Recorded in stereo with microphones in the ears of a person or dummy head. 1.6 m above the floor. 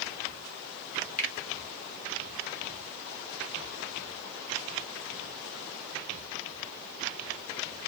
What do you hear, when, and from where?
1.2 s a finger snap: 40° left (ahead or behind), 1.3 m